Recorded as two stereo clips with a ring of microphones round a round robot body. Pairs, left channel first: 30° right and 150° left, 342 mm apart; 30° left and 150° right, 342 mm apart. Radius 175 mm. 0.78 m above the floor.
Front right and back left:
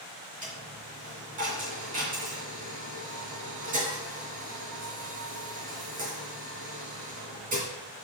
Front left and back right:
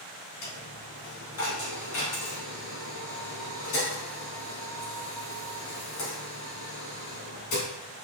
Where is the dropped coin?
80° left, 3 m.